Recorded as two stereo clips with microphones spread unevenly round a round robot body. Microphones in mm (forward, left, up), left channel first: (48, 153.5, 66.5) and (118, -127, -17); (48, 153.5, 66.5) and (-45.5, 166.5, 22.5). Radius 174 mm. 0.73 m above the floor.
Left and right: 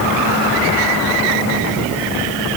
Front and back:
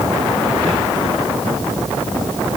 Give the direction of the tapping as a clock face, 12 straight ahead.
I don't hear tapping.